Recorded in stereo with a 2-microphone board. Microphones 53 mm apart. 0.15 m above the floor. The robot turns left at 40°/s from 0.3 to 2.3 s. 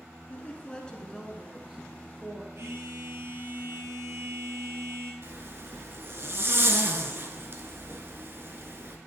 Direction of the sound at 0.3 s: 45° left.